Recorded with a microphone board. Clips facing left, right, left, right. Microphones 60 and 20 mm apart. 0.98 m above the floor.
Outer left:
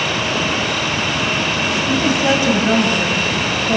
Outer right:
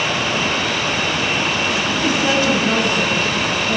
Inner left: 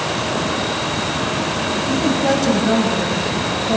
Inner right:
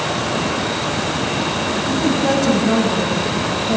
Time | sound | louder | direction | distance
1.9 | a woman speaking | outer left 4 dB, even | 20° left (ahead or behind) | 5 m